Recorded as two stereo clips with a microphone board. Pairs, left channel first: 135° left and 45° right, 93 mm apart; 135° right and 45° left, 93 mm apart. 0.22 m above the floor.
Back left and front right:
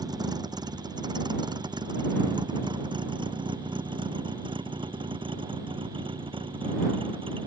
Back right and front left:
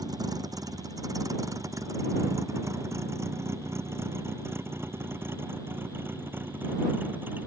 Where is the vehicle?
Straight ahead; by 7.5 s 25° right.